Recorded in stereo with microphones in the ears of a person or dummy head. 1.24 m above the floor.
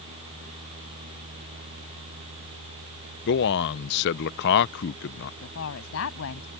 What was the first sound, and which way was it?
A man speaking, 55° left (ahead or behind).